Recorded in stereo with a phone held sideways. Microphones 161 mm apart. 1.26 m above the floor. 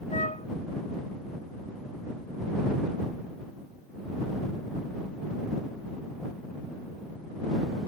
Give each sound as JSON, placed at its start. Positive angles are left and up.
{"t": 0.1, "sound": "a flute", "side_deg": 50}